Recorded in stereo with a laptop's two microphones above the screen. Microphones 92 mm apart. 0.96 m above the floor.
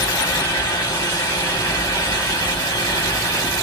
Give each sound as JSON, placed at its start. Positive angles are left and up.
{"t": 0.0, "sound": "a fan", "side_deg": 60, "distance_m": 1.4}